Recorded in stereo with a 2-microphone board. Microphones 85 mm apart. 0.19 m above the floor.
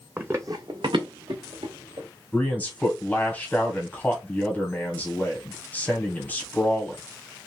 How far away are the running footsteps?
About 0.6 m.